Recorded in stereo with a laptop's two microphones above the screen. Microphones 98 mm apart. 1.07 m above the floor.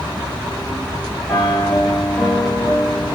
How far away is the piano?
About 2.5 m.